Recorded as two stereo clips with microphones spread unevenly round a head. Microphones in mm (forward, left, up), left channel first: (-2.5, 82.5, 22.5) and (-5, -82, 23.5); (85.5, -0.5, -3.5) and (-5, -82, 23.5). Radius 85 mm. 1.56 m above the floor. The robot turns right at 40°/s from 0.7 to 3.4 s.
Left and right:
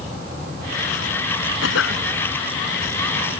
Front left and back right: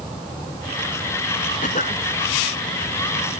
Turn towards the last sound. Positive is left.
turn(degrees=155)